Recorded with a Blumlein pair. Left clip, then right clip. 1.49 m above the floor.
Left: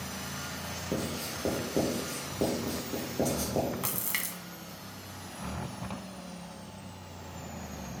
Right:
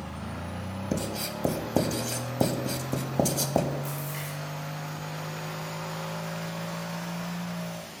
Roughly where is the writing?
Ahead right.